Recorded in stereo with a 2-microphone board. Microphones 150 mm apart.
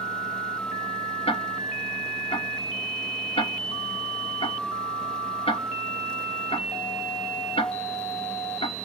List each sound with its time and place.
1.3 s ticking: 40° left (ahead or behind), 1.5 m